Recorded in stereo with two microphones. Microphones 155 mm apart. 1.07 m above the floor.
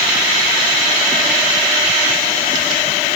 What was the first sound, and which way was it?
Only background noise.